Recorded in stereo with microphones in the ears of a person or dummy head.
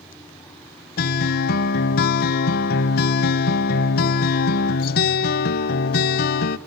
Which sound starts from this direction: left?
A guitar, at 1.0 s.